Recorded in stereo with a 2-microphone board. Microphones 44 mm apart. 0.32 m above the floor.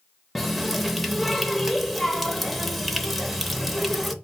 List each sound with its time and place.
0.3 s a running tap: centre (ahead or behind), 0.5 m